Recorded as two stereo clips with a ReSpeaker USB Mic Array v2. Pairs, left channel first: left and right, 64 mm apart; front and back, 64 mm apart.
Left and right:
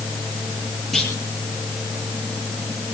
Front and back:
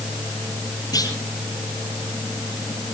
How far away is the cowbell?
I don't hear a cowbell.